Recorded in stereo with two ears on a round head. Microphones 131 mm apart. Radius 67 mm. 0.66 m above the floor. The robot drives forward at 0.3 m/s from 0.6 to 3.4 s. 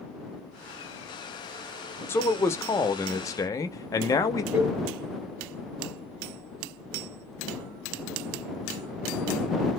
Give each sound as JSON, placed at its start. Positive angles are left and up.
{"t": 2.1, "sound": "a man speaking", "side_deg": 15, "distance_m": 0.7}
{"t": 4.5, "sound": "a cowbell", "side_deg": -15, "distance_m": 1.8}